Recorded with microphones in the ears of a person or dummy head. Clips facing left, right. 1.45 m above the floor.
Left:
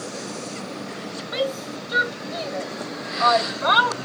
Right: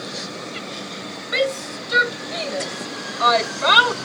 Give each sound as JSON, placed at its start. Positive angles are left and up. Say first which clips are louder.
{"t": 1.3, "sound": "a shout", "louder": "right 3 dB", "side_deg": -35}